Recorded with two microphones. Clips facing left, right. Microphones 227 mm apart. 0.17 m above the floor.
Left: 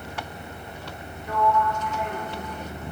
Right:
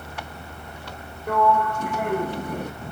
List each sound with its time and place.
1.3 s a sliding door: 60° right (ahead or behind), 1.1 m